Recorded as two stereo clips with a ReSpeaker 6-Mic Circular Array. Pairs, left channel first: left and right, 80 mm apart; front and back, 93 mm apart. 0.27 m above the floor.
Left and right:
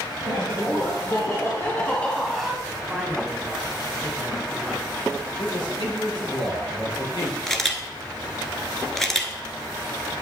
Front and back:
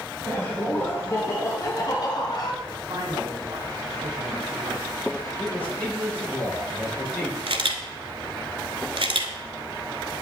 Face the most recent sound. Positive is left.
turn(degrees=175)